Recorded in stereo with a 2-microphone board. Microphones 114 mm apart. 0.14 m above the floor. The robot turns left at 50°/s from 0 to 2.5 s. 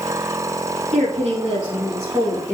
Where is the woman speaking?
100° right, 4 m; by 2.5 s straight behind, 4 m.